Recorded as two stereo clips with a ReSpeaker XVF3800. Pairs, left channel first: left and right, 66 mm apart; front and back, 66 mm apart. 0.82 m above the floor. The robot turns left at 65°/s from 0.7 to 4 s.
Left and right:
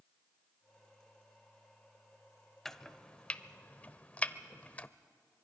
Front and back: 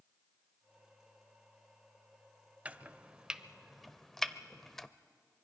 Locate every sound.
2.6 s chopping: 165° left, 0.5 m; by 4.9 s 75° left, 0.5 m